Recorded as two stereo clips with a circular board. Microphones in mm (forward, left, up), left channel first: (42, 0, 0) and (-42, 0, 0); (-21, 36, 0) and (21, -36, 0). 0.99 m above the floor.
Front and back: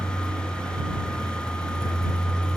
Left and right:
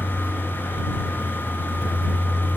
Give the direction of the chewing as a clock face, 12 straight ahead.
No chewing in this recording.